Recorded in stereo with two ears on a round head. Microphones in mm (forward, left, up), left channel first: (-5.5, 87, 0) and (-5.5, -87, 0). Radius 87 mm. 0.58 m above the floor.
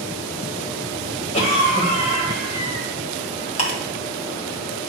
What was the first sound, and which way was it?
A cough, 35° left (ahead or behind).